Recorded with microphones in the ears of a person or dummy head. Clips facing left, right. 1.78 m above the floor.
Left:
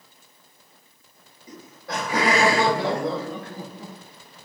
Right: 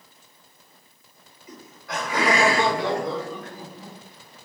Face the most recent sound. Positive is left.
turn(degrees=20)  # may be behind; listen again after turning